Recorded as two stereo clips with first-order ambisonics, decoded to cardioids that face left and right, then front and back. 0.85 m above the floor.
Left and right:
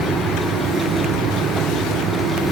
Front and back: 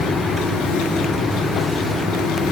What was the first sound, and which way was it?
Only background noise.